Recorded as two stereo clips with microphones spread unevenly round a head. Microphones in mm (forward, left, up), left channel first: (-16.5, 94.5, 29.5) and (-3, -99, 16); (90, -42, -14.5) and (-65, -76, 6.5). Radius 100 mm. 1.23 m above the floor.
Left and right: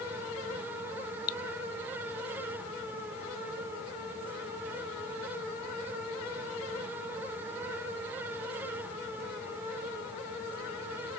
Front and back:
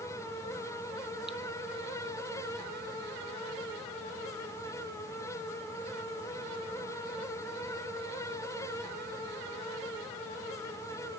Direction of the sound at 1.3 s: 105° left.